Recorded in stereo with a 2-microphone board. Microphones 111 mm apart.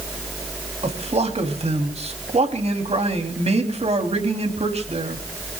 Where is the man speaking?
70° right (ahead or behind), 3 m.